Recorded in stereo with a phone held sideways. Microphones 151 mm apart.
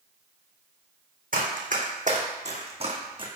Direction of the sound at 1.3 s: 70° right (ahead or behind).